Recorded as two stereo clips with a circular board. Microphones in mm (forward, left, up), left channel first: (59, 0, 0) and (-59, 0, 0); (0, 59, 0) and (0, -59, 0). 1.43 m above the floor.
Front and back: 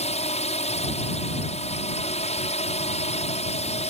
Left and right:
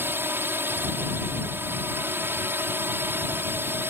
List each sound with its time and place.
0.0 s a drone: 20° right